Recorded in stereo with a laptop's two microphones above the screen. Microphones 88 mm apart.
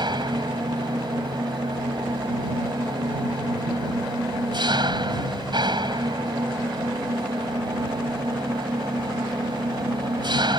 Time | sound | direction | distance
0.0 | an engine running | 60° right (ahead or behind) | ?